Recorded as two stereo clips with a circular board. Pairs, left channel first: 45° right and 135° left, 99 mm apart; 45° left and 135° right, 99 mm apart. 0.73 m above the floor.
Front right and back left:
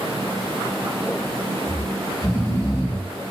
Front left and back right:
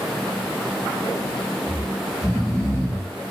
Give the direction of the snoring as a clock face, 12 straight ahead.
12 o'clock.